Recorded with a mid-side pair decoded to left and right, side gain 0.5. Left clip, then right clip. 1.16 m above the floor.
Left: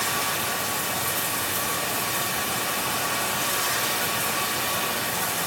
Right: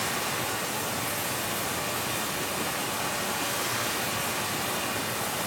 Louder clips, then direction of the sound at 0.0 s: Left 4 dB; 60° left.